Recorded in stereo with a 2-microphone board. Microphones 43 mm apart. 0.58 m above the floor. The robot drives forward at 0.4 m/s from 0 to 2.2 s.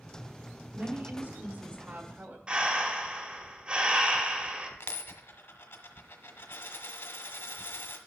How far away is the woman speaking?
About 1.3 m.